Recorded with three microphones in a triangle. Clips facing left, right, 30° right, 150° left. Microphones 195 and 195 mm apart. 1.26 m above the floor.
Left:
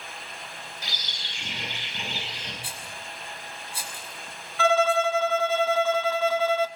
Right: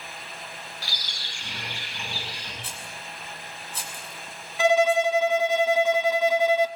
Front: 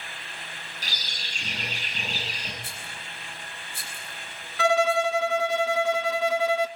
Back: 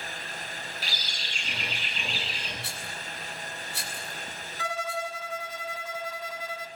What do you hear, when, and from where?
0.8 s a bird: 20° left, 9 m
2.6 s a rattle: 170° left, 6.5 m
4.6 s a violin: 15° right, 1.1 m